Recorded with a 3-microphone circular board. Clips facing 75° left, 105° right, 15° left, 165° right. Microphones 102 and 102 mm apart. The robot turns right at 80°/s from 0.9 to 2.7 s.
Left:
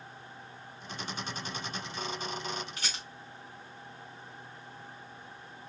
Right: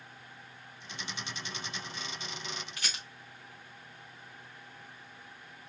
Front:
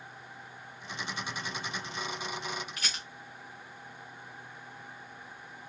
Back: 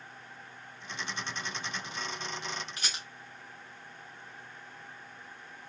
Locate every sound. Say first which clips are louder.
2.8 s a rattle: left 1 dB, even; 135° left, 2.5 m